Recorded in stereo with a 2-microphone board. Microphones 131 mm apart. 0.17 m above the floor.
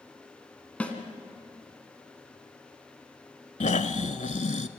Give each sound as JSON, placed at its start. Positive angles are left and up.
{"t": 0.8, "sound": "a snare drum", "side_deg": 10, "distance_m": 1.9}
{"t": 3.6, "sound": "snoring", "side_deg": 65, "distance_m": 0.7}